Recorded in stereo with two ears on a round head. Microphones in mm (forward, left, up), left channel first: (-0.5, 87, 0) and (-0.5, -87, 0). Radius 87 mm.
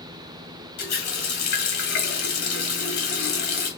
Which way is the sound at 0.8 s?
55° left (ahead or behind).